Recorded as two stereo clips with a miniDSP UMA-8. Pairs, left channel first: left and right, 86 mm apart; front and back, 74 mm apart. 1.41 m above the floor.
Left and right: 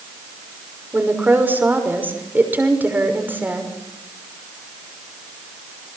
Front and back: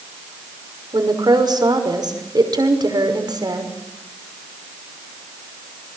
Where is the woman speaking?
155° right, 6 m.